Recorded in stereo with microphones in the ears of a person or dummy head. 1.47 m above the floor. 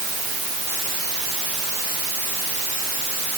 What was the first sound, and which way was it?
Only background noise.